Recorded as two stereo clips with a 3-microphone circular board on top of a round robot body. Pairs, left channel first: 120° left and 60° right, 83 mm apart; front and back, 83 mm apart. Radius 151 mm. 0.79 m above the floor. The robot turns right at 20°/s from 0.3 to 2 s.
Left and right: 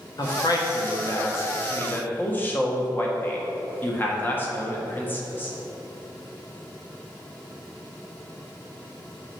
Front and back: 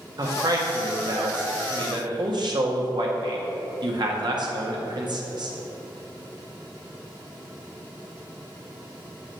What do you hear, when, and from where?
0.2 s a man speaking: 150° left, 1.8 m; by 5.5 s 175° right, 1.8 m